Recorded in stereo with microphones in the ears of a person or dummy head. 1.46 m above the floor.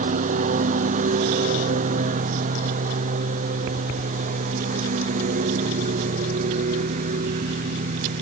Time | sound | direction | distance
0.0 | a lawn mower | 40° right (ahead or behind) | ?